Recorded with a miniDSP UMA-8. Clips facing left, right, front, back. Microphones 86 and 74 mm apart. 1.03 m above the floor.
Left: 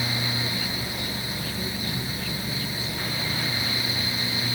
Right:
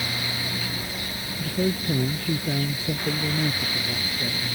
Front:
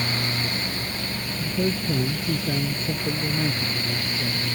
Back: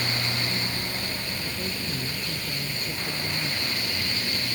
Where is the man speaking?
50° right; by 4.5 s 55° right.